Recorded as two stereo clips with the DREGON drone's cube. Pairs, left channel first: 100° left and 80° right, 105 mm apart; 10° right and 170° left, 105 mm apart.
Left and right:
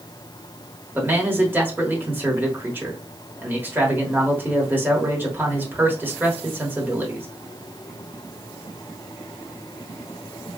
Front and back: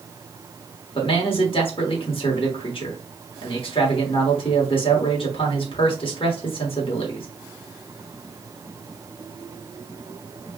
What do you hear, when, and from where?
0.9 s a man speaking: 10° right, 1.2 m